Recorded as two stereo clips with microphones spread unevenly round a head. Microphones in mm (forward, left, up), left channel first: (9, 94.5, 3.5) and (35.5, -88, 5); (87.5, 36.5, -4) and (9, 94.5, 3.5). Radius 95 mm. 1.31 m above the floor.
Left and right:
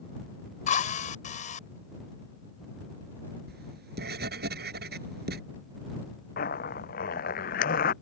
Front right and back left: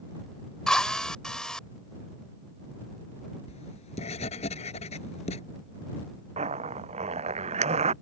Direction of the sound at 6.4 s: 145° left.